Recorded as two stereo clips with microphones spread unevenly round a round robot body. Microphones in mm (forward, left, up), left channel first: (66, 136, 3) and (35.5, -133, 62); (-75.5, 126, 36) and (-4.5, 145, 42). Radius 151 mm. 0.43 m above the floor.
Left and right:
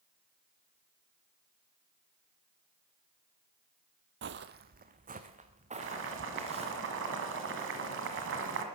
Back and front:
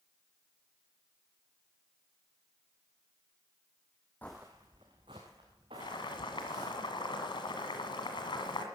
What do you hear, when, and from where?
4.2 s footsteps: 85° right, 0.6 m; by 6.7 s 30° right, 4 m
5.8 s boiling: 150° right, 1.8 m